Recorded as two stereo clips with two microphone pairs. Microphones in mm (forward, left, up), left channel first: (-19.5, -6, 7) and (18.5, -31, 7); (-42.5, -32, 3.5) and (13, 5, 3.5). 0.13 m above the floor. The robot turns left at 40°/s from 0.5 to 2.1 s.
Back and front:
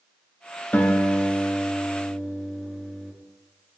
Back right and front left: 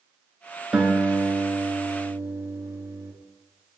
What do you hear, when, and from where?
0.7 s a guitar: 110° left, 0.6 m; by 3.1 s 55° left, 0.6 m